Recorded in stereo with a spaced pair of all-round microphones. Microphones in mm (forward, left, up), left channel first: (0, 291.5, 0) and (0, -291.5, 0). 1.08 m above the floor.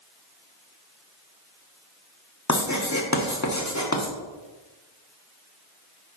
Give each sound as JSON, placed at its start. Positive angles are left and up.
{"t": 2.5, "sound": "writing", "side_deg": 30, "distance_m": 1.4}